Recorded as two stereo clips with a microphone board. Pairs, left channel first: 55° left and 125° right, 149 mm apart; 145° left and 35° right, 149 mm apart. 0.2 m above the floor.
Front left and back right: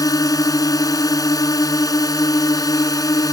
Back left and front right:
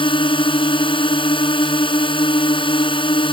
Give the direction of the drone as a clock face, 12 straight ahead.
8 o'clock.